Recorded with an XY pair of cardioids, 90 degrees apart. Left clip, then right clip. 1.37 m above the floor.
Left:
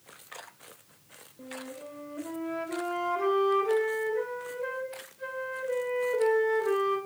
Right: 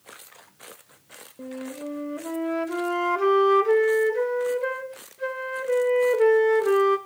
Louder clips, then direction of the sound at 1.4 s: Right 6 dB; 60° right.